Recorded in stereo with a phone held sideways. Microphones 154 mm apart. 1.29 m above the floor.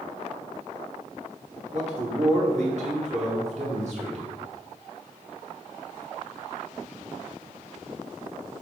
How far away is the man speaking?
About 1.6 m.